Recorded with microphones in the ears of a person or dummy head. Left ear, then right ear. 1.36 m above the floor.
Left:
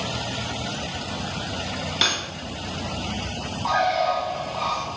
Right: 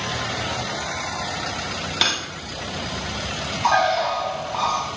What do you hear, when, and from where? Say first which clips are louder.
2.0 s cutlery clinking: right 1 dB; 5° right (ahead or behind), 1.7 m
3.6 s a bird: right 2 dB; 75° right (ahead or behind), 6 m